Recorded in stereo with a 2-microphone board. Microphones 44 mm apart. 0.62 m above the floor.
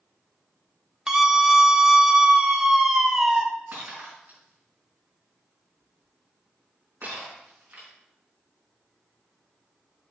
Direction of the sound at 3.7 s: 45° right (ahead or behind).